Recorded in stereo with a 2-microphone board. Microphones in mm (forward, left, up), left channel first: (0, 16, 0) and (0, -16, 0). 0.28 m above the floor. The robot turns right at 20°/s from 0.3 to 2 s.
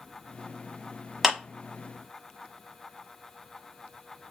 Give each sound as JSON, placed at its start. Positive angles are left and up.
{"t": 1.2, "sound": "a clap", "side_deg": 0, "distance_m": 1.2}